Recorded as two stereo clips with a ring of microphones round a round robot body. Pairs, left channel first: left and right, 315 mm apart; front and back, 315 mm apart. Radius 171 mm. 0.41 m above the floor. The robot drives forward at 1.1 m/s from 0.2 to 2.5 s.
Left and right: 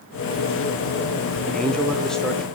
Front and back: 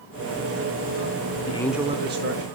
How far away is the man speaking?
About 0.8 m.